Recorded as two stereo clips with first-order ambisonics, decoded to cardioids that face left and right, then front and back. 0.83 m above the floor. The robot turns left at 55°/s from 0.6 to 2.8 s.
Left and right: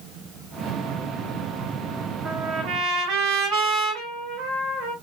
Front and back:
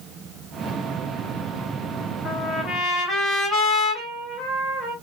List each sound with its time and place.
2.2 s a trumpet: 30° right, 3 m; by 4.9 s 60° right, 3 m